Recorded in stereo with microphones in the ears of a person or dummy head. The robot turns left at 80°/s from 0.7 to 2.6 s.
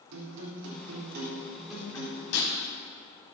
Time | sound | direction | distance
0.1 | a guitar | 95° right | 4 m
2.3 | breaking glass | 75° left (ahead or behind) | 6 m